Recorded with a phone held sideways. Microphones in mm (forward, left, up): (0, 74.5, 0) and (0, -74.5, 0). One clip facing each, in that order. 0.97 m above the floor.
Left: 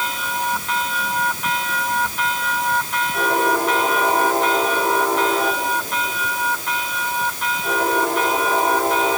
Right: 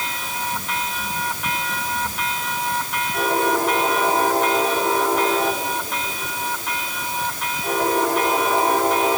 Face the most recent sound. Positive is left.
No sound to turn to.